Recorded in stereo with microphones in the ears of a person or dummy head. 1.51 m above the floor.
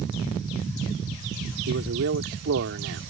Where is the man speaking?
65° right (ahead or behind).